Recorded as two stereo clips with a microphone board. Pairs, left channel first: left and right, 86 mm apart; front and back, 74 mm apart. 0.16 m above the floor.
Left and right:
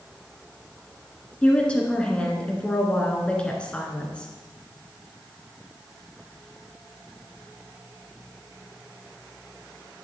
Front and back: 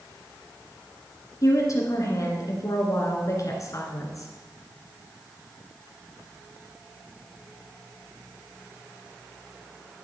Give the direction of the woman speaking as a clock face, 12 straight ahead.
11 o'clock.